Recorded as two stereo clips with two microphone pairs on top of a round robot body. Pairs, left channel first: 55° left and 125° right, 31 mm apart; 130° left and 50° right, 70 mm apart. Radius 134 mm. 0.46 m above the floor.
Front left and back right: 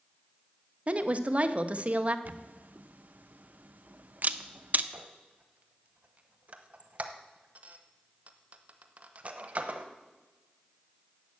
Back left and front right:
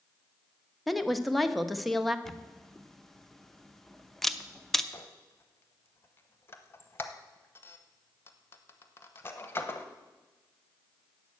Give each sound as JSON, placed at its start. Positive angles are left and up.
{"t": 0.9, "sound": "a woman speaking", "azimuth_deg": -140, "distance_m": 1.1}
{"t": 2.2, "sound": "a camera shutter", "azimuth_deg": -145, "distance_m": 0.8}
{"t": 4.9, "sound": "a squeak", "azimuth_deg": -170, "distance_m": 0.8}